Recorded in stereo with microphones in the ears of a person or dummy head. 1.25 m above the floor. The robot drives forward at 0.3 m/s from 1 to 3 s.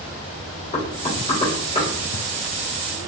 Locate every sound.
0.7 s knocking: 35° left (ahead or behind), 2.5 m; by 1.9 s 30° left (ahead or behind), 2.5 m